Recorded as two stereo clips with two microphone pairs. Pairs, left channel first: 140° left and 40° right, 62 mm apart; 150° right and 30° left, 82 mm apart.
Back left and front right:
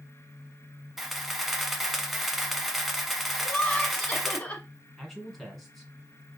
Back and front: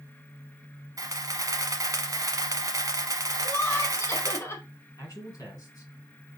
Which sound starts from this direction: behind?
Laughter, at 3.4 s.